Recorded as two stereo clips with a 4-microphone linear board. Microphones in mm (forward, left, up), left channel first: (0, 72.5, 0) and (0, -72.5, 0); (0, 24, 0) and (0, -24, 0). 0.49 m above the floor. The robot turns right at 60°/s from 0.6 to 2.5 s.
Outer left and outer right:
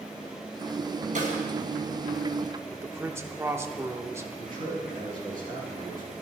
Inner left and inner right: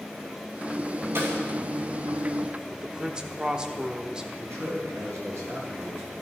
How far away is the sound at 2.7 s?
About 0.9 m.